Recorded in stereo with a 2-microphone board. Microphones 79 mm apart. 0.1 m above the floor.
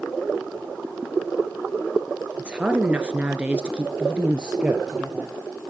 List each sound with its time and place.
2.4 s a woman speaking: 15° right (ahead or behind), 1.4 m; by 5.4 s 10° right (ahead or behind), 2 m